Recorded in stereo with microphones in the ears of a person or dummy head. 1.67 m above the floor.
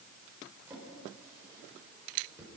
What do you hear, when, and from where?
0.7 s a drawer: 10° right (ahead or behind), 4 m